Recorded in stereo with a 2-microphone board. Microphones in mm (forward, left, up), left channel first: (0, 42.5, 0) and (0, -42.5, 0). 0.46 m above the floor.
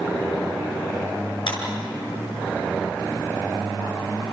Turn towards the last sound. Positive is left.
turn(degrees=65)  # may be behind; listen again after turning